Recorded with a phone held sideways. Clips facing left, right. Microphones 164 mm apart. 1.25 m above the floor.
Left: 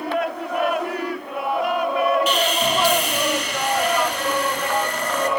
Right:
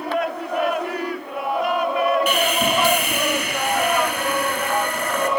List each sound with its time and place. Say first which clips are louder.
2.3 s sawing: right 1 dB; 60° right (ahead or behind), 4.5 m